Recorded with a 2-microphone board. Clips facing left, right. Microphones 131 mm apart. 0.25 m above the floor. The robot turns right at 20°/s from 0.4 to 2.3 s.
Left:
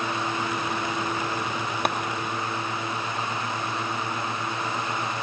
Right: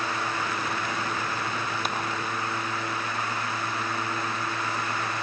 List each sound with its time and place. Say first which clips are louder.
1.9 s a clap: left 8 dB; 60° left (ahead or behind), 3 m